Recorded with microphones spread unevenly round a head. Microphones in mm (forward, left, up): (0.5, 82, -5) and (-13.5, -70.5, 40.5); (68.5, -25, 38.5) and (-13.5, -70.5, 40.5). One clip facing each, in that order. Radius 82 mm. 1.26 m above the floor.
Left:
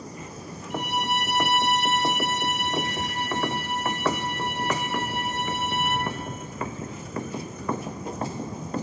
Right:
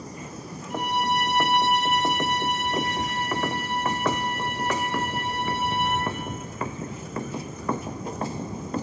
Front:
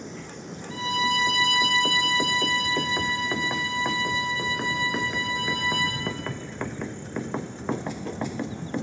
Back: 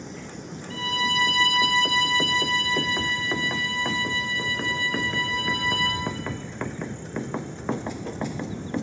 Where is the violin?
40° right, 6.5 m.